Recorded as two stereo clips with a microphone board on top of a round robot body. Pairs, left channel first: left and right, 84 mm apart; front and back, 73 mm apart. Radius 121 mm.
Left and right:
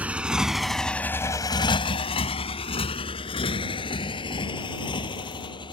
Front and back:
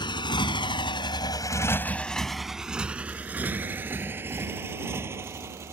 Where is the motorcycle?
15° right; by 5.7 s 120° left.